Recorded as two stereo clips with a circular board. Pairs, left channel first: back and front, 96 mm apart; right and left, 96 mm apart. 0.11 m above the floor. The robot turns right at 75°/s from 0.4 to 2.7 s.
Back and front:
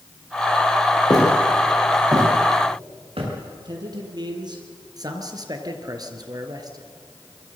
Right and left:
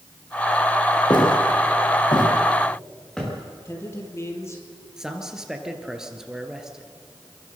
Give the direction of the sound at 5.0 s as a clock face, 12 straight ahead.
12 o'clock.